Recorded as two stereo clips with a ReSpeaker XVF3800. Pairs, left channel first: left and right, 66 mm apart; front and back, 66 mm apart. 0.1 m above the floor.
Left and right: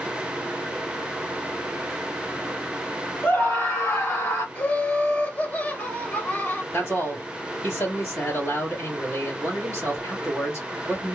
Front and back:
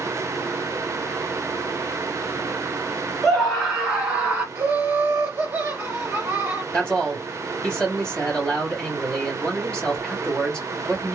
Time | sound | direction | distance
3.2 | a scream | 80° left | 1.4 m
4.5 | laughter | 130° left | 1.3 m
6.7 | a man speaking | 70° left | 2 m